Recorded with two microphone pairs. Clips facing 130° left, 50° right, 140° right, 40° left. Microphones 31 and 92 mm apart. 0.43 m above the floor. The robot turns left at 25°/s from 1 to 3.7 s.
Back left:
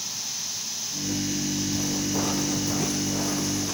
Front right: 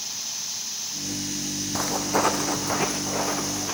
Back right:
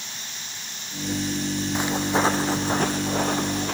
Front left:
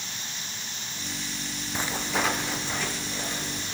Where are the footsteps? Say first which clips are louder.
Front right 3 dB, back right 5 dB; 65° right, 1.5 m; by 3.7 s 120° right, 2.5 m.